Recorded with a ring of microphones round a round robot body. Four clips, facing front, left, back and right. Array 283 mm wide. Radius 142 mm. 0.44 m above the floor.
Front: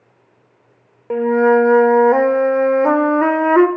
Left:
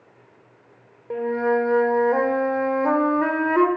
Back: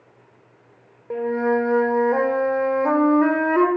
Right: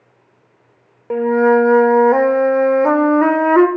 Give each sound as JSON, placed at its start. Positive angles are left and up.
{"t": 1.1, "sound": "a flute", "azimuth_deg": -45, "distance_m": 1.9}